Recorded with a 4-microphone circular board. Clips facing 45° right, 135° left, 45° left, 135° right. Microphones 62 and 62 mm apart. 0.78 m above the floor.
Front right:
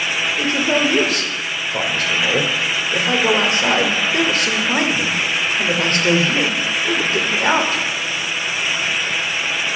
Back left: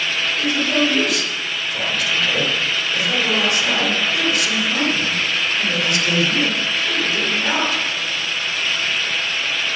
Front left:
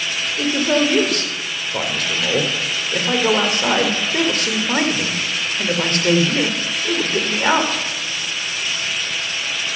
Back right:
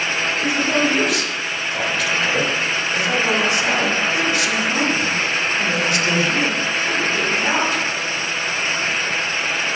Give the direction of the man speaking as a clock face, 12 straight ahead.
12 o'clock.